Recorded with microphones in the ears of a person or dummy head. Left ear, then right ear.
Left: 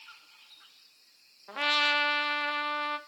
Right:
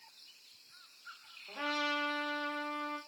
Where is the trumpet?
60° left (ahead or behind), 0.5 m.